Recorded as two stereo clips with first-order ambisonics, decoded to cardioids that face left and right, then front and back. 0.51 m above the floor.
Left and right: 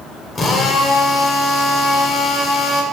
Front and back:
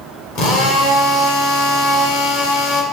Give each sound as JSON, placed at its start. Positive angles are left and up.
{"t": 0.3, "sound": "a drill", "azimuth_deg": 25, "distance_m": 2.0}